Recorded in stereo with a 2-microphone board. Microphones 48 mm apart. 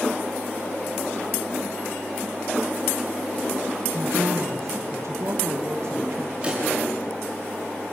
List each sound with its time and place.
3.9 s a woman speaking: 75° right (ahead or behind), 1.7 m
6.4 s a pop: 25° right (ahead or behind), 6.5 m